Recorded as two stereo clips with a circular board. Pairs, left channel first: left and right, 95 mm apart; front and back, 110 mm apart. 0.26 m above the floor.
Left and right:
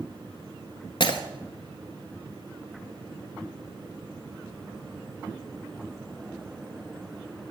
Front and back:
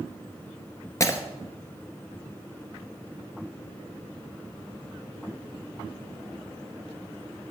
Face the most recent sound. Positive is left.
turn(degrees=60)